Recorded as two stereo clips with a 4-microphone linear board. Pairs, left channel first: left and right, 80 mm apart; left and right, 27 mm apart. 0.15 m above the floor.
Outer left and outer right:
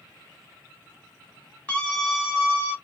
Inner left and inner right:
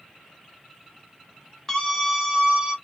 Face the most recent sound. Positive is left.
turn(degrees=-30)  # may be behind; listen again after turning